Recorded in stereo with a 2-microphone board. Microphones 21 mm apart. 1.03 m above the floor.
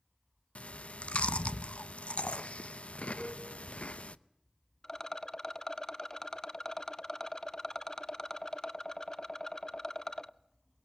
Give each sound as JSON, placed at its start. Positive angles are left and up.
{"t": 0.6, "sound": "chewing", "side_deg": 60, "distance_m": 0.7}
{"t": 3.2, "sound": "a cowbell", "side_deg": 25, "distance_m": 10.0}
{"t": 4.8, "sound": "a rattle", "side_deg": 25, "distance_m": 0.6}